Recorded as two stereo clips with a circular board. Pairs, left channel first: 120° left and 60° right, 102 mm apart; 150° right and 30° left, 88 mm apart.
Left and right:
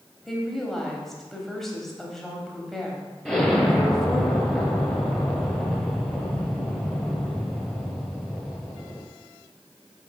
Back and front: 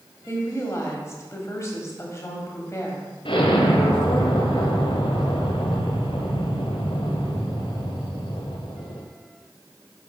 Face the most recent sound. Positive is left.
turn(degrees=-155)